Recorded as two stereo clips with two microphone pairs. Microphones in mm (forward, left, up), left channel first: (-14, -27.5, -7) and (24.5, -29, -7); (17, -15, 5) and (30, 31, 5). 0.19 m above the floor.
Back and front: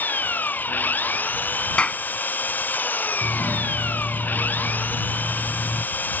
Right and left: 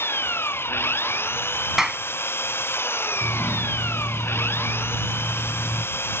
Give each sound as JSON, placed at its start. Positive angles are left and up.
{"t": 0.0, "sound": "an engine running", "azimuth_deg": -140}
{"t": 1.8, "sound": "a clap", "azimuth_deg": 150}
{"t": 3.2, "sound": "a doorbell", "azimuth_deg": -25}